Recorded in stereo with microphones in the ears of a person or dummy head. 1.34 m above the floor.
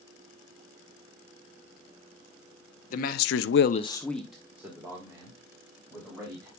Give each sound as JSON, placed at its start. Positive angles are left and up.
{"t": 2.9, "sound": "a man speaking", "side_deg": 45, "distance_m": 1.0}